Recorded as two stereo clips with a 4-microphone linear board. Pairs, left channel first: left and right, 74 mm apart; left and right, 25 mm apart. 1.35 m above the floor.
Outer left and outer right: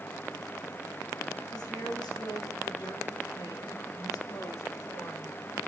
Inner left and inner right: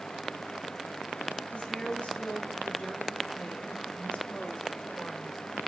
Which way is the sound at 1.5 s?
85° left.